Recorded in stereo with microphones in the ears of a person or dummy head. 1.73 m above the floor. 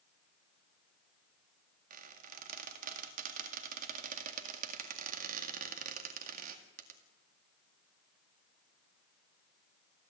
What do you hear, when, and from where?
1.9 s a squeak: 50° right (ahead or behind), 1.9 m